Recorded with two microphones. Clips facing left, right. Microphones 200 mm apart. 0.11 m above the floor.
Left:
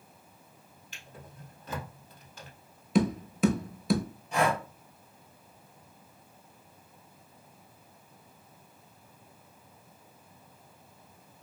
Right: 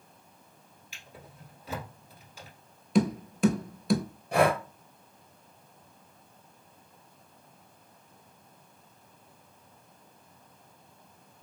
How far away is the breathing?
About 0.8 m.